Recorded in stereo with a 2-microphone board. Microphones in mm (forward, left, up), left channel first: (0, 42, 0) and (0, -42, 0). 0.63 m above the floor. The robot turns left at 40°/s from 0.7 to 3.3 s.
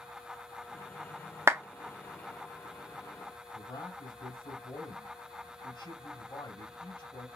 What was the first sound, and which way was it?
A clap, 30° right (ahead or behind).